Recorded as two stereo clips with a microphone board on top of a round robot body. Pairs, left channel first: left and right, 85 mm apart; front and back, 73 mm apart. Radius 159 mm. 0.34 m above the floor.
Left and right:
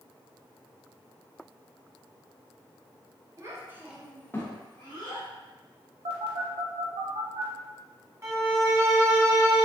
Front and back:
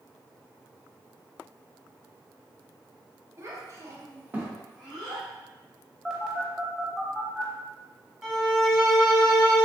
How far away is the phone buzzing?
About 0.6 m.